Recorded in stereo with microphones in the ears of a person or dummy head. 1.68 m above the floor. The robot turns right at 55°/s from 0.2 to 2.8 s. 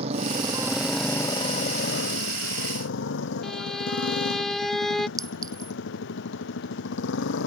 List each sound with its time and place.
0.0 s a motorcycle: 45° right; by 7.5 s 100° left
3.4 s a violin: centre (ahead or behind)
5.2 s a clink: 30° right (ahead or behind)